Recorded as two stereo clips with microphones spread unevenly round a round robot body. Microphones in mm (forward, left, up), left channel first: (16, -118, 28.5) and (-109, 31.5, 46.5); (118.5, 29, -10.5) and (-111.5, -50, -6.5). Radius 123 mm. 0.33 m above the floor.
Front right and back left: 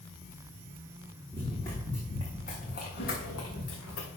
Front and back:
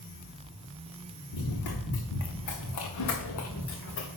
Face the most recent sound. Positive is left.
turn(degrees=-30)